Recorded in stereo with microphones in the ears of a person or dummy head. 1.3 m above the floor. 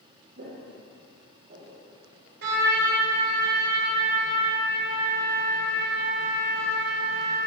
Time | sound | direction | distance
0.4 | footsteps | 55° right (ahead or behind) | 2.5 m
2.4 | a trumpet | 65° right (ahead or behind) | 2.5 m